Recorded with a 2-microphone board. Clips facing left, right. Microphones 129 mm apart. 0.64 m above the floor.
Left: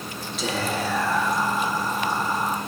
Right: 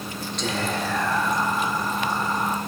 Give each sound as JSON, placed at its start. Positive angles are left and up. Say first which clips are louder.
{"t": 0.4, "sound": "whispering", "louder": "left 1 dB", "side_deg": 5, "distance_m": 0.7}